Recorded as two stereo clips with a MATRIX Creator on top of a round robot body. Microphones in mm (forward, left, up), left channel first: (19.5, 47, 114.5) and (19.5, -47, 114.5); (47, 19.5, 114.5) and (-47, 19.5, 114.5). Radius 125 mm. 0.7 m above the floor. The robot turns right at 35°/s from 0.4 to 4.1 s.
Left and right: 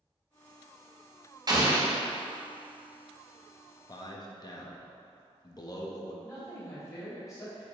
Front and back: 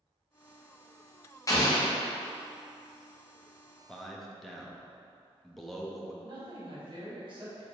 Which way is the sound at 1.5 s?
50° right.